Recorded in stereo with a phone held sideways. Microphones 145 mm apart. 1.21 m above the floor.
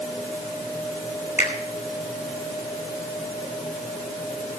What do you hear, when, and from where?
1.4 s a finger snap: 55° left (ahead or behind), 5.5 m